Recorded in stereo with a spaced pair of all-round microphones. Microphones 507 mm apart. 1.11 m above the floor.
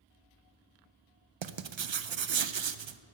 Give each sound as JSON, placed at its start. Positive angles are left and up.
{"t": 1.4, "sound": "writing", "side_deg": -65, "distance_m": 0.5}